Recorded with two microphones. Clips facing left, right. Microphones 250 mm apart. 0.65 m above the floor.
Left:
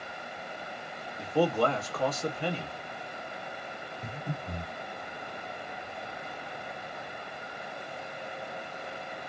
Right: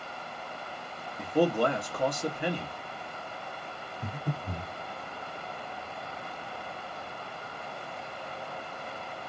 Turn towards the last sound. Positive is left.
turn(degrees=-35)  # may be behind; listen again after turning